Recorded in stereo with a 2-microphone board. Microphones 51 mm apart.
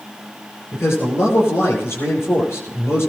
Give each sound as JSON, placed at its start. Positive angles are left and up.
{"t": 0.7, "sound": "a man speaking", "side_deg": 55, "distance_m": 8.0}